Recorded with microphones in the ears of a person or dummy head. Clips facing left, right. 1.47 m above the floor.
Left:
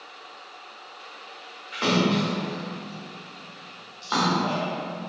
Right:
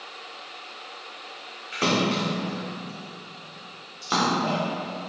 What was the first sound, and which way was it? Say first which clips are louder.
A splash: left 2 dB; 30° right (ahead or behind).